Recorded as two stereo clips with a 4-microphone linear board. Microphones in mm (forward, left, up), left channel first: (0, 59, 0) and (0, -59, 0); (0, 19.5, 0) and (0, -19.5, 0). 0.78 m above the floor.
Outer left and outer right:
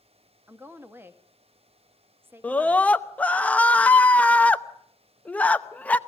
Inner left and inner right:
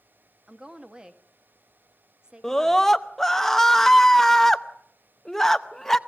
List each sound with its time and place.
0.5 s a woman speaking: 20° right (ahead or behind), 1.2 m
2.4 s a scream: 10° left (ahead or behind), 0.7 m